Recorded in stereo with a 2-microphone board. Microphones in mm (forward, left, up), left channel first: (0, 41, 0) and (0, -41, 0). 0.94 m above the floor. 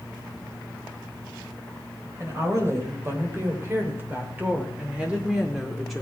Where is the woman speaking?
35° right (ahead or behind), 3.5 m; by 6.0 s centre (ahead or behind), 2 m.